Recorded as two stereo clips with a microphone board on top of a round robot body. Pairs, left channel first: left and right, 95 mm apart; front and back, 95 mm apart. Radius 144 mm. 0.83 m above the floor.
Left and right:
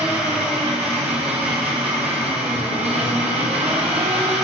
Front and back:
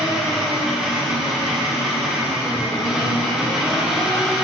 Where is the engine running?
95° right, 1.2 m.